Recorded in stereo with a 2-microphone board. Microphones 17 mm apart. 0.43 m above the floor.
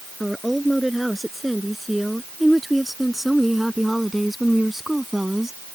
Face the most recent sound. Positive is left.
turn(degrees=-20)  # may be behind; listen again after turning